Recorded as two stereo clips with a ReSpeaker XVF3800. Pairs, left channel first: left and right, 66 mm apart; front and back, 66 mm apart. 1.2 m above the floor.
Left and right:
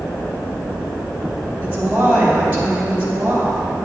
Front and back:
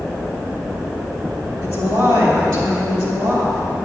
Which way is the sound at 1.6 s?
155° right.